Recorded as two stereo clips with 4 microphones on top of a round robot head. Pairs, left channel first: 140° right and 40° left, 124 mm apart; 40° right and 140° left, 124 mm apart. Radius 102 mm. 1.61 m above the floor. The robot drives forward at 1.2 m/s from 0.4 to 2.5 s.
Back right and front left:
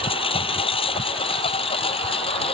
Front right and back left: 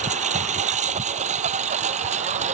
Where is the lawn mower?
170° left; by 2.5 s 175° left.